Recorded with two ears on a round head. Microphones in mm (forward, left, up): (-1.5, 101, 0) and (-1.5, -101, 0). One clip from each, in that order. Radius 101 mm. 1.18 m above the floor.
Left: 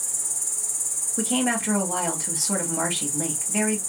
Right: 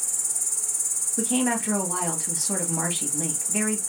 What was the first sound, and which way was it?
An insect, 20° right (ahead or behind).